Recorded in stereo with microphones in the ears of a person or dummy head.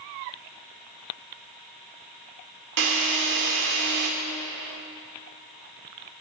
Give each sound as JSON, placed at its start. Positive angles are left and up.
{"t": 2.8, "sound": "a drill", "side_deg": -60, "distance_m": 1.5}